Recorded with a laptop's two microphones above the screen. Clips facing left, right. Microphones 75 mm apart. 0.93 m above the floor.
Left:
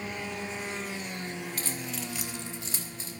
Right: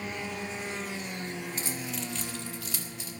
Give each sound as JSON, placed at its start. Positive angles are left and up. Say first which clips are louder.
{"t": 1.6, "sound": "keys jangling", "louder": "right 1 dB", "side_deg": -25, "distance_m": 0.9}